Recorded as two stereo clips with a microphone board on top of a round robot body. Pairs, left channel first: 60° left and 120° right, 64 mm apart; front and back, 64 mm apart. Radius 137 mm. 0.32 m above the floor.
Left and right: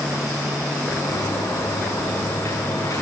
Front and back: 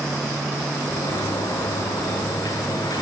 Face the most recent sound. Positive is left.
turn(degrees=15)